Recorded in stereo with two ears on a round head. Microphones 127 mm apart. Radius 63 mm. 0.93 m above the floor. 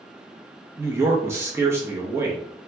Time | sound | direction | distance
0.8 | a man speaking | 20° right (ahead or behind) | 0.8 m